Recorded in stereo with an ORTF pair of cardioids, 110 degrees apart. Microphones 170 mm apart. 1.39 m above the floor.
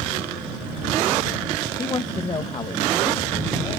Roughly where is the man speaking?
Ahead left.